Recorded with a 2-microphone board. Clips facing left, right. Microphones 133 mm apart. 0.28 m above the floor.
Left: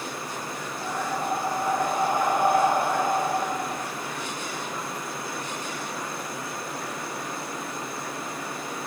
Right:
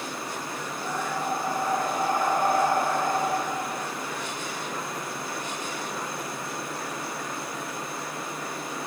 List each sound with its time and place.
0.8 s breathing: 15° left (ahead or behind), 4.5 m